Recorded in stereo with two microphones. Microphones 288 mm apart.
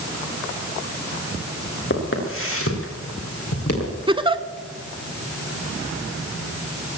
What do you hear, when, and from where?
1.9 s footsteps: 45° left (ahead or behind), 4 m; by 3.9 s 60° left (ahead or behind), 5 m
4.1 s a giggle: 20° right (ahead or behind), 0.5 m